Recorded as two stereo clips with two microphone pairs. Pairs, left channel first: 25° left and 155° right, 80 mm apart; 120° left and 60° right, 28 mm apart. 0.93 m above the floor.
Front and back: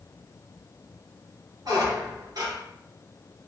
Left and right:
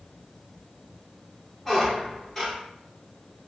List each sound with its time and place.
1.6 s a squeak: 155° right, 1.4 m